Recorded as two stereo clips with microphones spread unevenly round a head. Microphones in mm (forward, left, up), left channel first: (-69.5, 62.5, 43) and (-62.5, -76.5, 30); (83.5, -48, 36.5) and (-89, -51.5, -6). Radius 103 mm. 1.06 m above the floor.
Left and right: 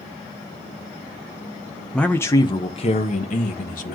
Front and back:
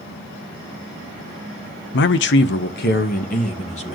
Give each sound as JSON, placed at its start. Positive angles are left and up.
{"t": 1.9, "sound": "a man speaking", "azimuth_deg": 0, "distance_m": 0.7}